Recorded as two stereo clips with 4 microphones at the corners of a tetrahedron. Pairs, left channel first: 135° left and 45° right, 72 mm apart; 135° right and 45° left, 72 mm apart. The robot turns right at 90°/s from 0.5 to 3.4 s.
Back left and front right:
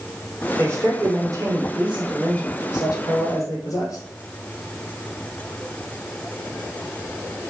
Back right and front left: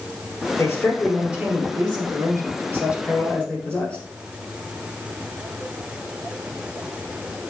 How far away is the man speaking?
About 1.7 m.